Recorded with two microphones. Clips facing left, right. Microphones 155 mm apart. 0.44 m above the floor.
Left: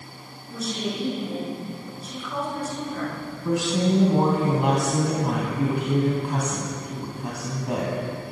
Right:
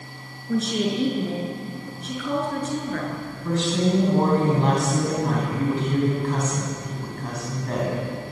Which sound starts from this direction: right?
A woman speaking, at 0.5 s.